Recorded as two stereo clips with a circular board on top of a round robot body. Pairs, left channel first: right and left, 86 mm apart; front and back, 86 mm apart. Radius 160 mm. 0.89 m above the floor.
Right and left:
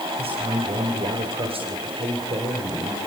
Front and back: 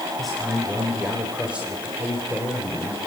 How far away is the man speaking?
About 4.5 m.